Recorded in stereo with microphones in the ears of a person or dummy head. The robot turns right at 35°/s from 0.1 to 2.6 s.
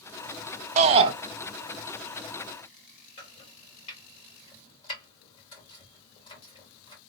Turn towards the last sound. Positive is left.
turn(degrees=35)  # may be behind; listen again after turning